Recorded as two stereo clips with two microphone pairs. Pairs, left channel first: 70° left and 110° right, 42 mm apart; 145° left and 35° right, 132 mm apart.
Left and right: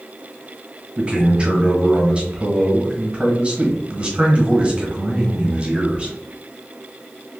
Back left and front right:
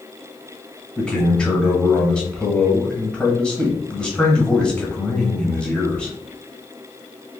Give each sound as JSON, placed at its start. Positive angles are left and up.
{"t": 1.0, "sound": "a man speaking", "azimuth_deg": -140, "distance_m": 1.3}